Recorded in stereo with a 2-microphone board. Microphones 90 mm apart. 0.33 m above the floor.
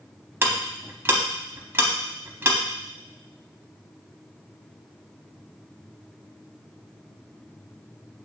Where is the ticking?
25° right (ahead or behind), 0.7 m.